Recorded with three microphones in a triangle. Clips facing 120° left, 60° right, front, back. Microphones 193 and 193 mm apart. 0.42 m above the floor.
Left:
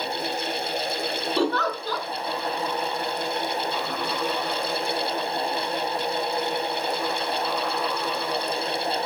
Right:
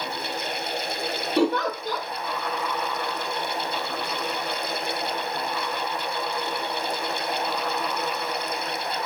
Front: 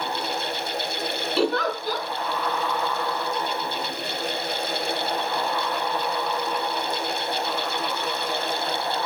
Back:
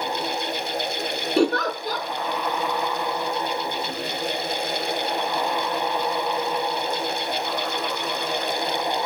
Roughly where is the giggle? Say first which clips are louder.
Right 3 dB, back 3 dB; behind right.